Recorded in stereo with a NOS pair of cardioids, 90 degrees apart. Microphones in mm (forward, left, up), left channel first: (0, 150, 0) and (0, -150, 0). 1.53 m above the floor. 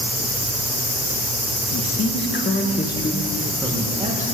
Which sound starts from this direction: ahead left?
A man speaking, at 1.7 s.